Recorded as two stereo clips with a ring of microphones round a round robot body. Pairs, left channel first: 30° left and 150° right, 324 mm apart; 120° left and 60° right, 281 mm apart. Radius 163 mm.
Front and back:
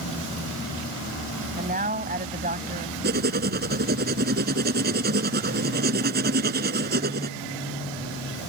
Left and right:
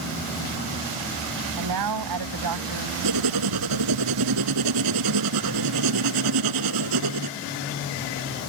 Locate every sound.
1.6 s a man speaking: 85° right
3.0 s writing: 90° right